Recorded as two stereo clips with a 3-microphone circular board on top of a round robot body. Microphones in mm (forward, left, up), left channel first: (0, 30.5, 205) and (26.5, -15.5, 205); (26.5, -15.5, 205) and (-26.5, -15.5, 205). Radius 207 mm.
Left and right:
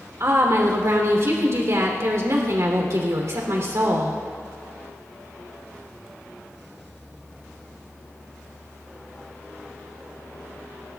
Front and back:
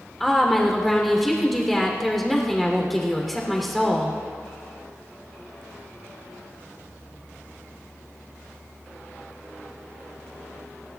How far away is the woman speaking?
About 3 m.